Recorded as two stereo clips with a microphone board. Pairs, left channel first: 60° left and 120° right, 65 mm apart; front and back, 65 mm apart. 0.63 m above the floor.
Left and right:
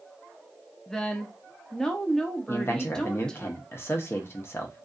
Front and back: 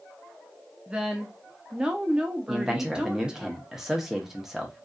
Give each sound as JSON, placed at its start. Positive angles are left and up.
{"t": 0.9, "sound": "a woman speaking", "azimuth_deg": 125, "distance_m": 0.6}
{"t": 2.5, "sound": "a man speaking", "azimuth_deg": 95, "distance_m": 0.8}